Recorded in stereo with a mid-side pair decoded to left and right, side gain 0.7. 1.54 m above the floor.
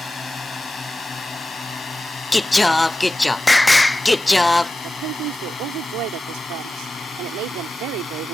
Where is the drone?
20° left; by 8.3 s 25° left.